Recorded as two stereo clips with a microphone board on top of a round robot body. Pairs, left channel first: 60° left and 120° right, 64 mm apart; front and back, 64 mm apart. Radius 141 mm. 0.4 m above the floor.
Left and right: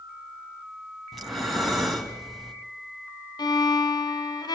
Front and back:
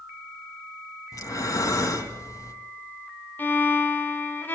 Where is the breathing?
25° right, 3 m.